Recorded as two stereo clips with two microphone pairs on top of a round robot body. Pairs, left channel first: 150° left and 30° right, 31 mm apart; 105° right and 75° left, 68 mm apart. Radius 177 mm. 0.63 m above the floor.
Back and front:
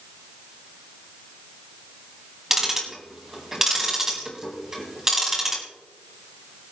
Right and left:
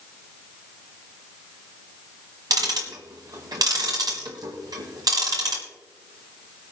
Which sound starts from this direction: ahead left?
Ticking, at 2.5 s.